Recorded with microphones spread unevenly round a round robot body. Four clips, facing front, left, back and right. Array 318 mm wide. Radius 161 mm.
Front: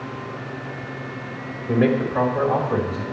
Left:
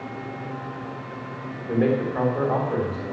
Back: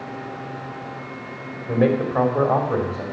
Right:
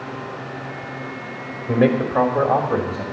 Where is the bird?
No bird in this recording.